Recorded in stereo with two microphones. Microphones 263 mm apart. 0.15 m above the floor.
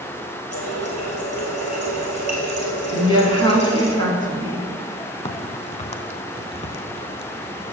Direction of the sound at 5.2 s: 25° left (ahead or behind).